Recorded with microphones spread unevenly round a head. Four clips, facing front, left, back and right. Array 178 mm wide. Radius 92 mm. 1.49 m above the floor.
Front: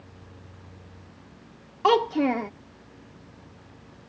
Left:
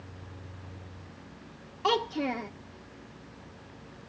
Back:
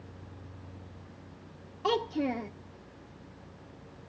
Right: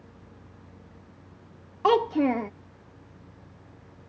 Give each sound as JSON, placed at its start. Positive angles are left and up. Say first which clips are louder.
{"t": 1.8, "sound": "a child speaking", "louder": "right 7 dB, front 8 dB", "azimuth_deg": -35}